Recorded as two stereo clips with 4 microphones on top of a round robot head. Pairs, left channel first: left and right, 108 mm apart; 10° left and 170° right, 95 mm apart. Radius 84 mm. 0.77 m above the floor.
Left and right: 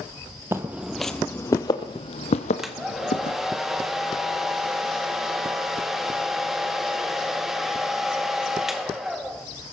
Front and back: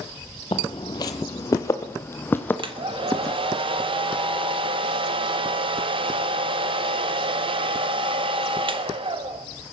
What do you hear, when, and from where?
0.5 s footsteps: 30° right, 0.9 m; by 3.4 s 90° left, 1.6 m
2.6 s a hair dryer: 175° right, 1.2 m